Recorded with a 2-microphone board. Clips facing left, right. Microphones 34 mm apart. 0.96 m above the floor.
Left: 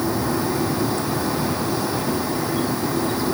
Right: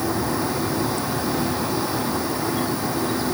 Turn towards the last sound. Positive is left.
No sound to turn to.